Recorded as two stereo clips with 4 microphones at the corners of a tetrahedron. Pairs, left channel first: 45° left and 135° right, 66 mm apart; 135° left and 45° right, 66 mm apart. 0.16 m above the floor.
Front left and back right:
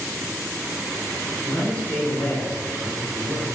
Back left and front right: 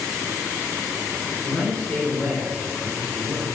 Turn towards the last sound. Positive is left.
turn(degrees=80)